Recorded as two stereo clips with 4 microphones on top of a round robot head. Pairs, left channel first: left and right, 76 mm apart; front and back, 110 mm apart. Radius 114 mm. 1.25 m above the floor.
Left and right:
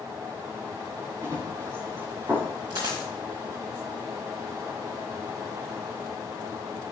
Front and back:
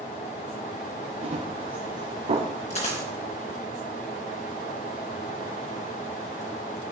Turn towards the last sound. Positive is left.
turn(degrees=-40)